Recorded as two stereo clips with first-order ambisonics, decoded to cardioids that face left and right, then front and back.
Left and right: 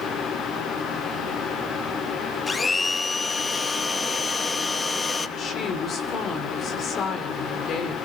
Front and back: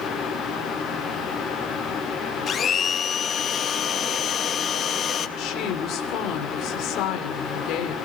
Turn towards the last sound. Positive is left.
turn(degrees=35)